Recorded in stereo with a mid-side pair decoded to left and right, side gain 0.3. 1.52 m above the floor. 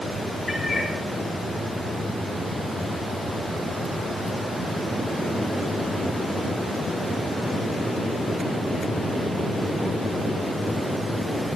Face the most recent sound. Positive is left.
turn(degrees=20)